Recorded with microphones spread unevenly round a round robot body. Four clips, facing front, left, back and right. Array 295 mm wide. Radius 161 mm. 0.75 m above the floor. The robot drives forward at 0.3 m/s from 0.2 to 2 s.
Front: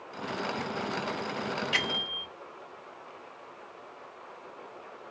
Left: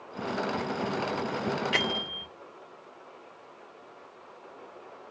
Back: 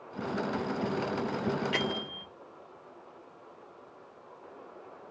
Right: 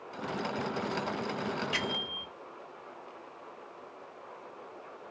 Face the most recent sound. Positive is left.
turn(degrees=90)